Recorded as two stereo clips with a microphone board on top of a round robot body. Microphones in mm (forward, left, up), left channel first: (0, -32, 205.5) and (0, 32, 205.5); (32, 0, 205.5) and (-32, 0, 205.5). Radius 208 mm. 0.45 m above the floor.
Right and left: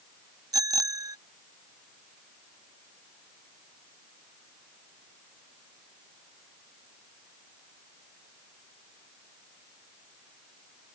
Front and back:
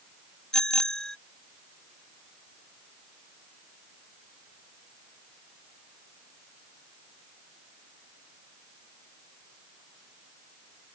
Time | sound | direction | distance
0.5 | a bicycle bell | 80° left | ?